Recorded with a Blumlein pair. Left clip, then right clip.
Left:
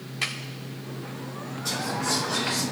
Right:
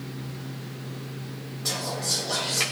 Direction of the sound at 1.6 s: 65° right.